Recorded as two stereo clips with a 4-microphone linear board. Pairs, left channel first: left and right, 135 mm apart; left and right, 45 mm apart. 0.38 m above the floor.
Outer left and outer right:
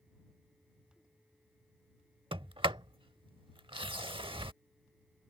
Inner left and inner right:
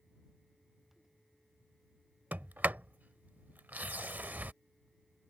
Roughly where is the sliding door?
Right.